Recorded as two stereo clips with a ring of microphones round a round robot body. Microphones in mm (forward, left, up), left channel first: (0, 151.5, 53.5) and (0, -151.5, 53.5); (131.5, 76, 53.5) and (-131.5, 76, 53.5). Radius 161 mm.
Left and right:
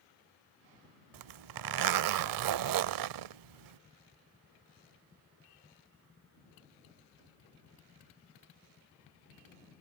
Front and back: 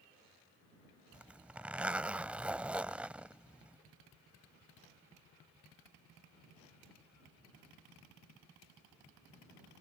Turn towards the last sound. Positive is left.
turn(degrees=-95)